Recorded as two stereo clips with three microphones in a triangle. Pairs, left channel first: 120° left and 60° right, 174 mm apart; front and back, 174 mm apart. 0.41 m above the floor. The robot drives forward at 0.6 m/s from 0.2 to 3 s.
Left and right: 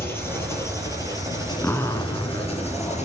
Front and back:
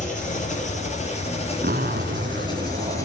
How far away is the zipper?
About 0.7 m.